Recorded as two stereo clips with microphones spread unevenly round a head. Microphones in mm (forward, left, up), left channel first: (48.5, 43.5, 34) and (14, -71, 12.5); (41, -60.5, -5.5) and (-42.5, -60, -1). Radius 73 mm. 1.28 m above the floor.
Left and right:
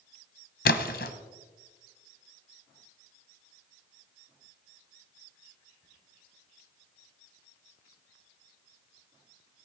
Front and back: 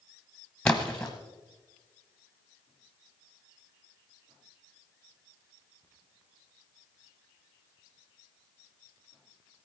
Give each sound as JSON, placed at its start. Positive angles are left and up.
{"t": 0.7, "sound": "a splash", "azimuth_deg": 85, "distance_m": 0.7}